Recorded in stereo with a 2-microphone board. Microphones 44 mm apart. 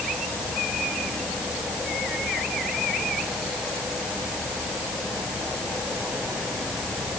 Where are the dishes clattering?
No dishes clattering in this recording.